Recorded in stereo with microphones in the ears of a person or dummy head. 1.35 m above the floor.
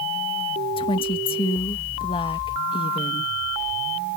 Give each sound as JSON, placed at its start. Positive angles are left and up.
{"t": 0.8, "sound": "a woman speaking", "side_deg": 25}